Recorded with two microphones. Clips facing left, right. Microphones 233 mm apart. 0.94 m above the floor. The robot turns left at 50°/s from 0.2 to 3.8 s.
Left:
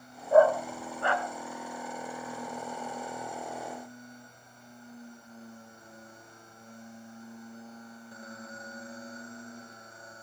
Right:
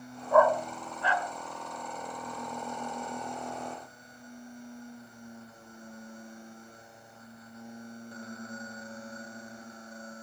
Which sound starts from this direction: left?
A dog barking, at 0.3 s.